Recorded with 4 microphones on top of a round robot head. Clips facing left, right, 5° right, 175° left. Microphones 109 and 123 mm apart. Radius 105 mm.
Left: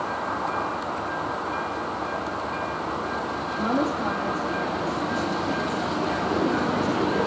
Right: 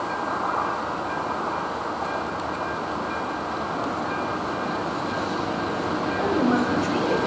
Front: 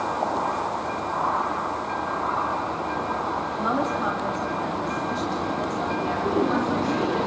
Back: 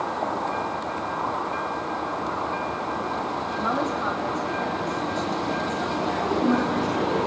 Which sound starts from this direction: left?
A woman speaking, at 3.6 s.